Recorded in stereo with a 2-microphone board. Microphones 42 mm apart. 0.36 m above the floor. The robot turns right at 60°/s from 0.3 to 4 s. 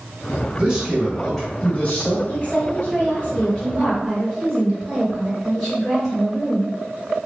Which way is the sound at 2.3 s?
75° left.